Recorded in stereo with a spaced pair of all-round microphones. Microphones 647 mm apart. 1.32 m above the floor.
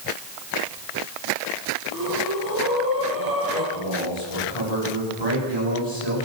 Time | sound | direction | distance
1.9 | breathing | 55° left (ahead or behind) | 6.5 m
3.7 | a man speaking | 60° left (ahead or behind) | 10 m